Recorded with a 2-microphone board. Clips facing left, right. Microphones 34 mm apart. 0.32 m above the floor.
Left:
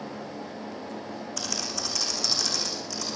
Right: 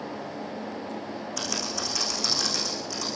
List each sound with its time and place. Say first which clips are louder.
1.4 s typing on a keyboard: right 2 dB; 5° right (ahead or behind), 10 m